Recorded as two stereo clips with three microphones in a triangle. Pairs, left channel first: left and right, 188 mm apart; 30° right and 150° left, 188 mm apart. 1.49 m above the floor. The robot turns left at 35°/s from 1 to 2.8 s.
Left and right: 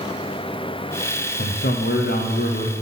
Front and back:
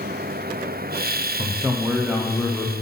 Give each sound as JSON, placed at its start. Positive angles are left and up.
{"t": 1.4, "sound": "a man speaking", "azimuth_deg": 85, "distance_m": 0.7}